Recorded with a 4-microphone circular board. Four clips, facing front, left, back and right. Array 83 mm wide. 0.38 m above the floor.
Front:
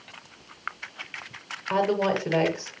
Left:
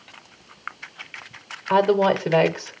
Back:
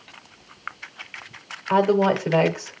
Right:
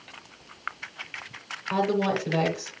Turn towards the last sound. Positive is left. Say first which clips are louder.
# left 7 dB, back 5 dB
turn(degrees=100)